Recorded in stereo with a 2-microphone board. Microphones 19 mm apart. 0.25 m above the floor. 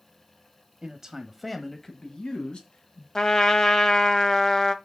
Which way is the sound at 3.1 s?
30° left (ahead or behind).